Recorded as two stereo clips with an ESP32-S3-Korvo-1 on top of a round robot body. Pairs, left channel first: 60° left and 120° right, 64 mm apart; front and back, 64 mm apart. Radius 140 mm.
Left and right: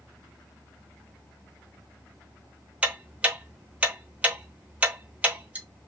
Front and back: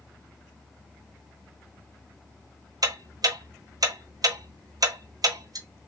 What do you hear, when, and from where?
2.8 s ticking: 170° left, 0.9 m